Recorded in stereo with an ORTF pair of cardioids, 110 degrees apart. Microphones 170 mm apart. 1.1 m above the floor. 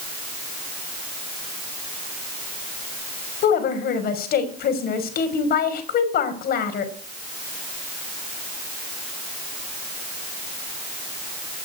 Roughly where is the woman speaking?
Ahead left.